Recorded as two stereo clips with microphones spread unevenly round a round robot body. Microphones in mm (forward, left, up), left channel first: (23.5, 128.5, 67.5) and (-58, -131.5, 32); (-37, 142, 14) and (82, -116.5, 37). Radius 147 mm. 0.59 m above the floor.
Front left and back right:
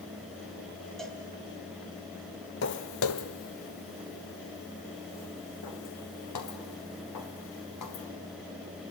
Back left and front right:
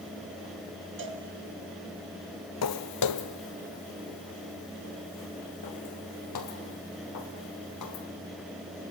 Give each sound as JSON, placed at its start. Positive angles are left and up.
{"t": 1.0, "sound": "a cowbell", "azimuth_deg": -15, "distance_m": 3.0}
{"t": 2.6, "sound": "footsteps", "azimuth_deg": 100, "distance_m": 0.8}